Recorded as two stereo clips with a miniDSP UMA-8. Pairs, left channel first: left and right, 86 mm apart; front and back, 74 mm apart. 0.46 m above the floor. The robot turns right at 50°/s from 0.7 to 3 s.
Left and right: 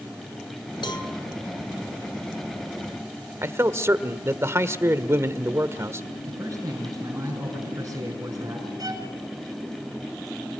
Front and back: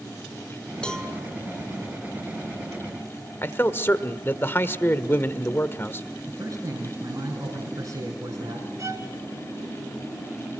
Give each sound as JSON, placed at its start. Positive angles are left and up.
{"t": 0.8, "sound": "a cowbell", "azimuth_deg": 75, "distance_m": 3.0}
{"t": 3.4, "sound": "a man speaking", "azimuth_deg": -45, "distance_m": 1.3}
{"t": 6.3, "sound": "a man speaking", "azimuth_deg": -150, "distance_m": 5.0}
{"t": 8.8, "sound": "a violin", "azimuth_deg": -135, "distance_m": 2.5}